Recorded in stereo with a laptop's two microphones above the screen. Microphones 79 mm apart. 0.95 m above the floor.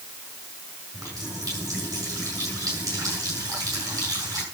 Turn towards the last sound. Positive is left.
turn(degrees=-45)  # may be behind; listen again after turning